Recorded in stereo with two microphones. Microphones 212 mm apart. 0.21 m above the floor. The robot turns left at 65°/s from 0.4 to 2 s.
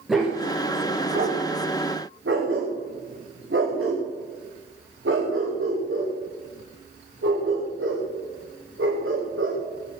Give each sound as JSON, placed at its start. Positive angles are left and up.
{"t": 0.1, "sound": "a dog barking", "side_deg": 0, "distance_m": 7.0}